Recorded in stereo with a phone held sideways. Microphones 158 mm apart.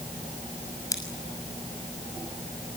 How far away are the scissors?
About 6 m.